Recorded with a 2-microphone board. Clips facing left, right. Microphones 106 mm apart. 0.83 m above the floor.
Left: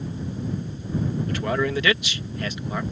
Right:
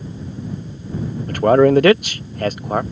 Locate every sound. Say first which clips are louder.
1.3 s a man speaking: right 15 dB; 45° right (ahead or behind)